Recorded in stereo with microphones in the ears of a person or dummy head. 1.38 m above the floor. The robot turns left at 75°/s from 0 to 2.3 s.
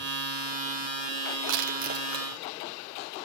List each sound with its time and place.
1.5 s crushing: 75° right (ahead or behind), 2 m; by 2.3 s 15° right (ahead or behind), 2 m